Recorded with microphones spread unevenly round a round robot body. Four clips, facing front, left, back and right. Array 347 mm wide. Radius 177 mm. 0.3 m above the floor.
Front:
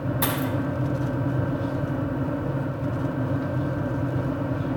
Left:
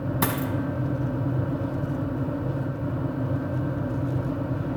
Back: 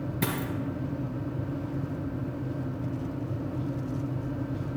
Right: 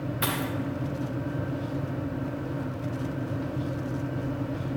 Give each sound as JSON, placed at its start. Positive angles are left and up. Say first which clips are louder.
{"t": 0.2, "sound": "a dropped coin", "louder": "left 3 dB, front 3 dB", "azimuth_deg": 125, "distance_m": 0.6}